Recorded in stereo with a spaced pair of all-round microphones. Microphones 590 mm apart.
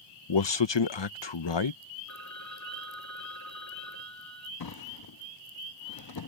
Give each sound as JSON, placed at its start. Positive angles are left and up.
{"t": 0.3, "sound": "a man speaking", "side_deg": 45}
{"t": 2.1, "sound": "a phone ringing", "side_deg": 30}
{"t": 4.6, "sound": "a drawer", "side_deg": 40}